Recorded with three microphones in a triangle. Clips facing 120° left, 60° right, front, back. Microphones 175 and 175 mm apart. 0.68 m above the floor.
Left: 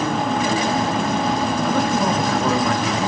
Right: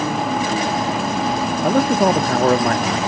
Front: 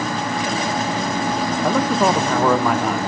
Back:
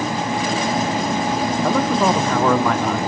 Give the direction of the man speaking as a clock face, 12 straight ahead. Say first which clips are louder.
Right 7 dB, front 1 dB; 3 o'clock.